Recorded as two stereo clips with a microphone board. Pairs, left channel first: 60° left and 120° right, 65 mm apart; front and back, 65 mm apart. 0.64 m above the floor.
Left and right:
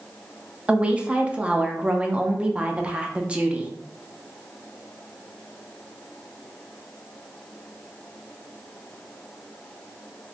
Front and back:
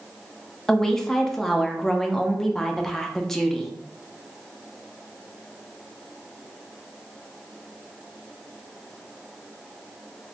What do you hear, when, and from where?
0.7 s a woman speaking: 75° right, 0.5 m